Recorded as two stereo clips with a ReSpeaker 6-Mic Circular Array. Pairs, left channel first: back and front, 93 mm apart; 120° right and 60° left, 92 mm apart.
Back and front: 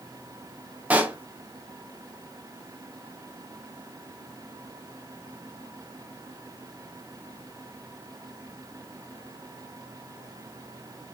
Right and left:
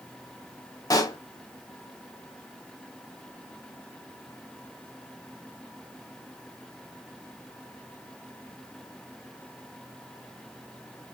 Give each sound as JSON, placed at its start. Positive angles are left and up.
{"t": 0.9, "sound": "a pop", "azimuth_deg": -75, "distance_m": 0.8}